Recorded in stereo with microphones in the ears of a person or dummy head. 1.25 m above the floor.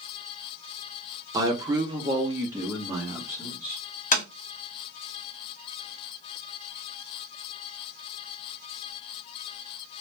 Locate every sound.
1.3 s a man speaking: 15° right (ahead or behind), 0.6 m
4.1 s tapping: 35° left (ahead or behind), 0.7 m